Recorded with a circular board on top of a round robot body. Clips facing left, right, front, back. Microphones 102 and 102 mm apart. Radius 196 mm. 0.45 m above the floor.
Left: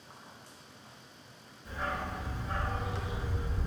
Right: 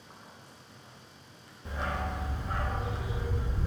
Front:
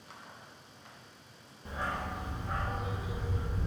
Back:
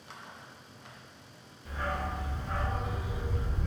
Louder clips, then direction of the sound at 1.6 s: Right 1 dB, back 2 dB; 60° right.